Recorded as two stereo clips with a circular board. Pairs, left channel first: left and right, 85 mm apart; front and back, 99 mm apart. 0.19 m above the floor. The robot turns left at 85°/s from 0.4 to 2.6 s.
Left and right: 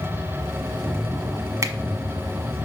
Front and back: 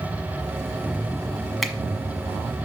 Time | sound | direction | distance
1.6 | a finger snap | 90° right | 1.2 m